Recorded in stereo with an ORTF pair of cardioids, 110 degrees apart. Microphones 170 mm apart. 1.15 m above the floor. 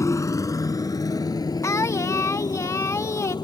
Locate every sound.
0.0 s a motorcycle: 20° left; by 3.5 s 25° left
1.6 s singing: 15° left